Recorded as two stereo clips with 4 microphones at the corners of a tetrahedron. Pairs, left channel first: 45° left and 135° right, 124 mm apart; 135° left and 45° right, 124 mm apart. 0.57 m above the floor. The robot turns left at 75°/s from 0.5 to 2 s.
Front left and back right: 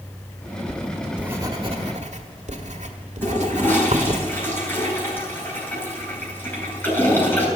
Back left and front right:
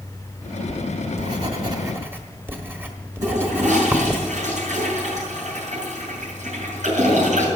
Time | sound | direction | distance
0.7 | writing | 20° right | 1.4 m
3.2 | a toilet flushing | 30° right | 6 m